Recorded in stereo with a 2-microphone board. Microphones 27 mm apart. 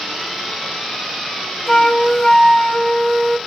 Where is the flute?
20° left (ahead or behind), 0.7 m.